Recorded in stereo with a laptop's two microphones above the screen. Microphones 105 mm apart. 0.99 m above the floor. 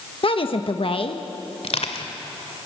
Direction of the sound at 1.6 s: 80° left.